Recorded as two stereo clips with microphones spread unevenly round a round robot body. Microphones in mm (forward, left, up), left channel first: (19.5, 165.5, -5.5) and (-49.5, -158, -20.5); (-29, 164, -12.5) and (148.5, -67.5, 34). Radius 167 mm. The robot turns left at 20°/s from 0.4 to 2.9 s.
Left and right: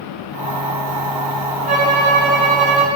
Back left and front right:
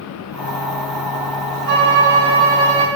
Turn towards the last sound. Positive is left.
turn(degrees=-60)